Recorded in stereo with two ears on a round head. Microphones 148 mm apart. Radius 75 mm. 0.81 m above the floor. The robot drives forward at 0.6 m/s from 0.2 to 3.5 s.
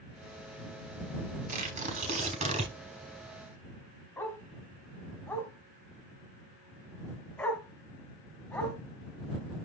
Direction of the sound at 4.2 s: 10° left (ahead or behind).